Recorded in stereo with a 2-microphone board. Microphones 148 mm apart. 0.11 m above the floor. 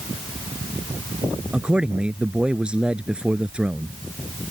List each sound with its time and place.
1.5 s a man speaking: 5° right (ahead or behind)